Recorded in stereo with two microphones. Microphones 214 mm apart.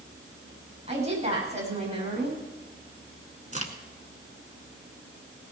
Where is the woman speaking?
30° right (ahead or behind), 8.5 m.